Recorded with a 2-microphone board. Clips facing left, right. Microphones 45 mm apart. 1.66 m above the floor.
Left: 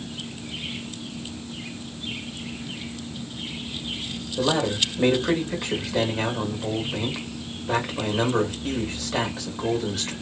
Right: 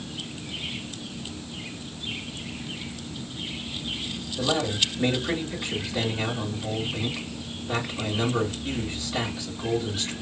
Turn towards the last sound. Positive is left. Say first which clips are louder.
# left 3 dB
turn(degrees=55)  # may be behind; listen again after turning